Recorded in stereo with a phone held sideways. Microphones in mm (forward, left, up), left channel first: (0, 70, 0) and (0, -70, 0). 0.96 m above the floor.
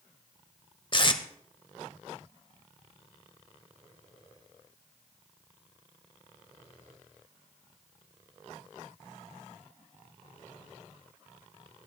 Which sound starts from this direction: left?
Tape being pulled, at 0.9 s.